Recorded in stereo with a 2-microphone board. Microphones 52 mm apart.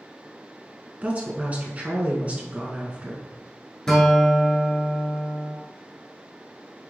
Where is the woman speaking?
30° right (ahead or behind), 1.2 m.